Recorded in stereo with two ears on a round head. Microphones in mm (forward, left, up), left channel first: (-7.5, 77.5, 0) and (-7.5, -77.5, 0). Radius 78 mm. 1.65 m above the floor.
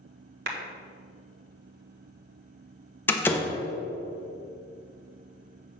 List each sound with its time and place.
0.5 s a clap: 65° right (ahead or behind), 1.4 m
3.1 s a door slam: 10° left (ahead or behind), 0.9 m